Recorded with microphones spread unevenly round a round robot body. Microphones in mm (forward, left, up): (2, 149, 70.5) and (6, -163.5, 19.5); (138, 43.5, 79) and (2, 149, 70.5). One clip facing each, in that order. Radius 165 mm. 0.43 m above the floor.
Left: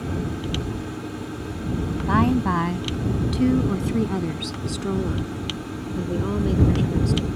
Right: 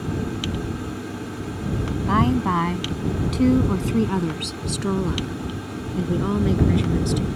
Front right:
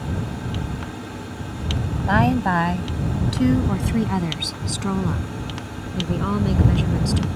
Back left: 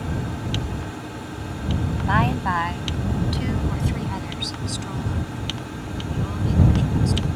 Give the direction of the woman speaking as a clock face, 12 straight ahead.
12 o'clock.